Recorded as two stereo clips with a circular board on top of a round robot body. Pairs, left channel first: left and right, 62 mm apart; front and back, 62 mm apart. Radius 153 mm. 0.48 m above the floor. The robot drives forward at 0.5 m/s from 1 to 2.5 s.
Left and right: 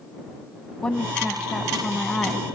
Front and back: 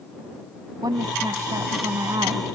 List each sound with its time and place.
0.8 s a woman speaking: 165° left